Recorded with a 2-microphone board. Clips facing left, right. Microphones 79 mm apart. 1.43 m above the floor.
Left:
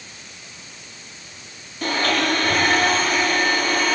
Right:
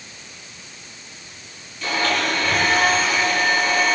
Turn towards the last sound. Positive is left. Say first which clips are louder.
# left 1 dB
turn(degrees=50)  # may be behind; listen again after turning